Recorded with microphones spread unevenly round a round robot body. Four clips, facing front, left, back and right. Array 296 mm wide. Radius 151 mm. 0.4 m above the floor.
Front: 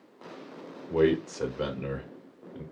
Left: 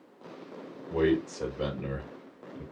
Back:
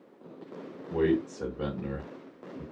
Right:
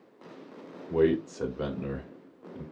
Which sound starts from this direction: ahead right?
A man speaking, at 0.9 s.